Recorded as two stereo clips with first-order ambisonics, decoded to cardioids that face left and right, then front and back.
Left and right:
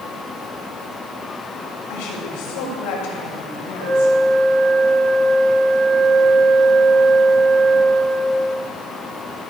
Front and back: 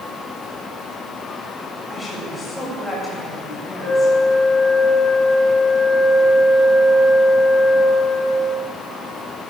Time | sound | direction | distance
1.9 | a woman speaking | 80° left | 7.5 m
3.8 | a flute | 120° right | 3.5 m